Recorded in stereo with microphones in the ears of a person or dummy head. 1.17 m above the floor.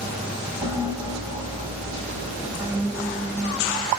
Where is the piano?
20° right (ahead or behind), 1.4 m.